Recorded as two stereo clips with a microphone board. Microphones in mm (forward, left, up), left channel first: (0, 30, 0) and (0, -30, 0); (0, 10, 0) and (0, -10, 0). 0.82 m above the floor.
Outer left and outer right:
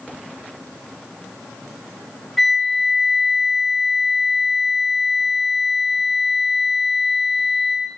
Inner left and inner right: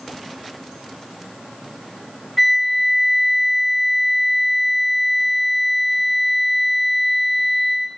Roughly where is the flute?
Centre.